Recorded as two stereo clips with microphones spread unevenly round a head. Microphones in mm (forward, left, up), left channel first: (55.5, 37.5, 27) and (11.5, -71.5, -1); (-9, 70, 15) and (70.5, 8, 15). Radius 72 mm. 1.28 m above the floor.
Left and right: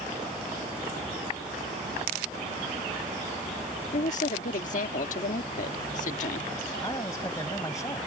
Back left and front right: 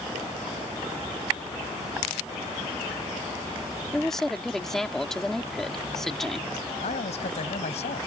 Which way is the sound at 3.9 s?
55° left.